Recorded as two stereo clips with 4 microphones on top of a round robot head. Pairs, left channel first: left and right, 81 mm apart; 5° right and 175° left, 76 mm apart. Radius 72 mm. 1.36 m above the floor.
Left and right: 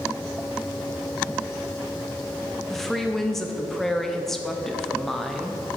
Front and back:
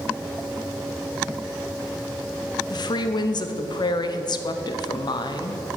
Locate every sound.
2.7 s a woman speaking: 5° left, 0.7 m